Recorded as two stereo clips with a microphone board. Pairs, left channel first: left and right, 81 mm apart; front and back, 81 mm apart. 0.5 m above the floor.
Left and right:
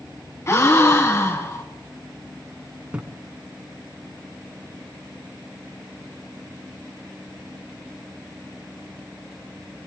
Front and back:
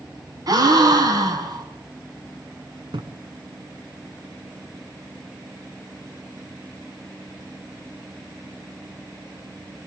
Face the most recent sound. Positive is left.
turn(degrees=-165)